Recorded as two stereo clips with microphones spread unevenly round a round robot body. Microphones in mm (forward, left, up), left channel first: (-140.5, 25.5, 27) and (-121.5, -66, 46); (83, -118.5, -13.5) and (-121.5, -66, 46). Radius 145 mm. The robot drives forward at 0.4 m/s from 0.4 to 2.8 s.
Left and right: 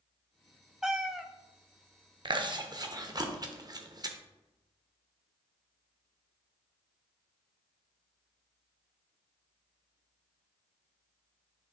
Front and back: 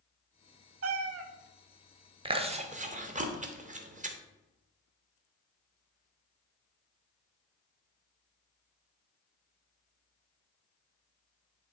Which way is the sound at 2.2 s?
120° right.